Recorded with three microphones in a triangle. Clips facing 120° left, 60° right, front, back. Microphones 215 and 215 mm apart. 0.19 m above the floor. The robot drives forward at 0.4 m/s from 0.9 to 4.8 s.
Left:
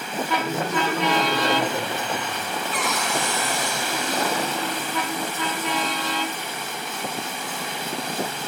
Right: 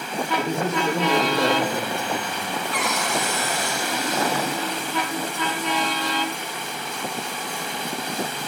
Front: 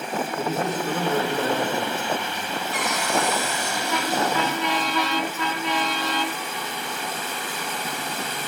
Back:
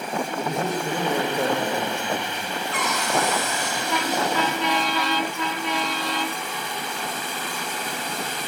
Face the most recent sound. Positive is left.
turn(degrees=-80)